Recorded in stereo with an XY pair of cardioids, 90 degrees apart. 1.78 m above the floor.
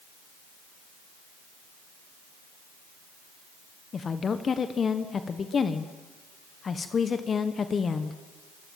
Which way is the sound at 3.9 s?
45° left.